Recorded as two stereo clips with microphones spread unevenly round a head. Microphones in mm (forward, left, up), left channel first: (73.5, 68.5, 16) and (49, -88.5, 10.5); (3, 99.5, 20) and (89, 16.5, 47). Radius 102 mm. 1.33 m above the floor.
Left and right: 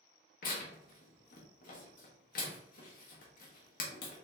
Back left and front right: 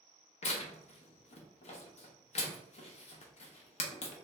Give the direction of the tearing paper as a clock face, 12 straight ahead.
8 o'clock.